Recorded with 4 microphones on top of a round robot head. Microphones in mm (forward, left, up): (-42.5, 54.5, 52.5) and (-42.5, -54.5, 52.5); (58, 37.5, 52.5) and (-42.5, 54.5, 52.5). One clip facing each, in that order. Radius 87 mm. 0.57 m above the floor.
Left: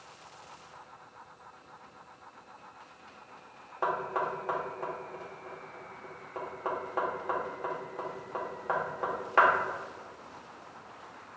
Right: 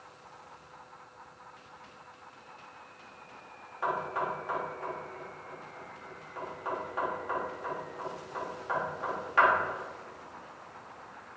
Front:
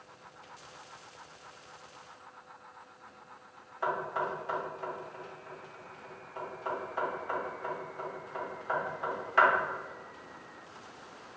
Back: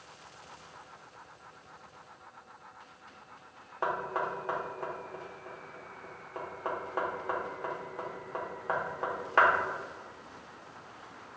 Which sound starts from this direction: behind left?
Knocking, at 3.8 s.